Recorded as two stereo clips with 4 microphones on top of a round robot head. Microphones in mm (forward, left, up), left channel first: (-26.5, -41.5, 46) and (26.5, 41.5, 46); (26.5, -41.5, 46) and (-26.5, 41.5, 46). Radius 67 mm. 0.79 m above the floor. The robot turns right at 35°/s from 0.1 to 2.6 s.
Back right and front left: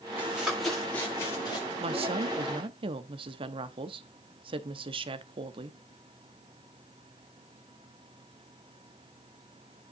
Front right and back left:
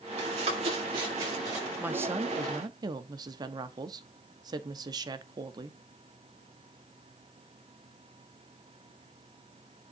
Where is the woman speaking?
50° left, 1.1 m; by 5.8 s 80° left, 1.1 m.